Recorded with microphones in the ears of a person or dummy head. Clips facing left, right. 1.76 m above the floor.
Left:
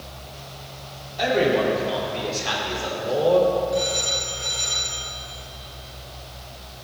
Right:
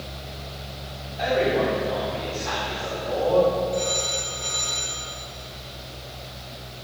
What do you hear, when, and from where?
1.2 s a man speaking: 60° left (ahead or behind), 4.5 m; by 3.4 s 45° left (ahead or behind), 5 m
3.7 s a phone ringing: 10° left (ahead or behind), 2 m